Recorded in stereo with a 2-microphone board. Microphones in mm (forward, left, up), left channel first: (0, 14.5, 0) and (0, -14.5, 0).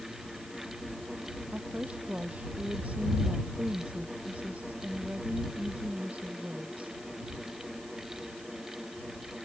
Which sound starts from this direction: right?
A woman speaking, at 1.5 s.